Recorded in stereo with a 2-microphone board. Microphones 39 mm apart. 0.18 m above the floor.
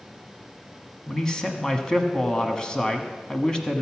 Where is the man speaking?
20° left (ahead or behind), 1.2 m.